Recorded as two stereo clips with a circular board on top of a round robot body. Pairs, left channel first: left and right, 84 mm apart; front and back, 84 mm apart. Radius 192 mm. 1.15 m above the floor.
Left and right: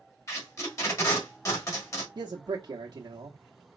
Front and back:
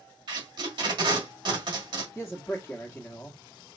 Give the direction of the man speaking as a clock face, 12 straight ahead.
2 o'clock.